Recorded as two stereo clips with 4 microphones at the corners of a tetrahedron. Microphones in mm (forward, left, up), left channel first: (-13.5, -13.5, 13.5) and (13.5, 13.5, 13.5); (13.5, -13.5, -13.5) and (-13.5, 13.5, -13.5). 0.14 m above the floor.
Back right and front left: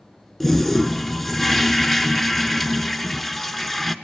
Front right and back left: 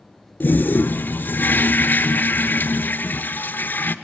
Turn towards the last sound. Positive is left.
turn(degrees=-55)